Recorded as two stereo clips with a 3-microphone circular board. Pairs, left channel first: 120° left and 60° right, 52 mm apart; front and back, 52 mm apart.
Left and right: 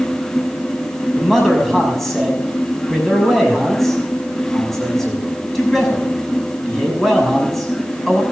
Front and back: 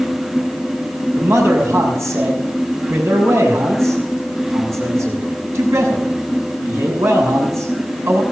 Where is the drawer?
No drawer in this recording.